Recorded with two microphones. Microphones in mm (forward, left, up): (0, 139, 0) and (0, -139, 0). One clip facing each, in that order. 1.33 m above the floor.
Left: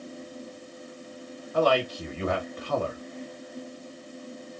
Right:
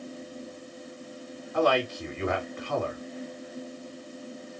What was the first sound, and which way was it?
A man speaking, 40° left (ahead or behind).